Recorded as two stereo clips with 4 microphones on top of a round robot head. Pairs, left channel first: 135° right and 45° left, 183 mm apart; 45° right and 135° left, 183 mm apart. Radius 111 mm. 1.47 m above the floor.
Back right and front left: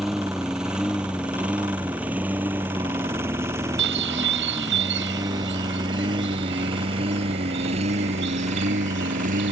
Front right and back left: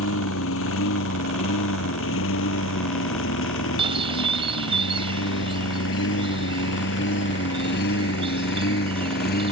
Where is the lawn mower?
45° right; by 9.5 s 5° right.